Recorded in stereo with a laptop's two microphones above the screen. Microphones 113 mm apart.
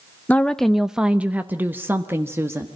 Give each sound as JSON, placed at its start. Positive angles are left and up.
{"t": 0.3, "sound": "a woman speaking", "side_deg": 15, "distance_m": 0.6}